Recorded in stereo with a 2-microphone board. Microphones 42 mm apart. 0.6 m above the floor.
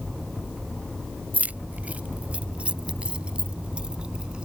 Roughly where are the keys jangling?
Right.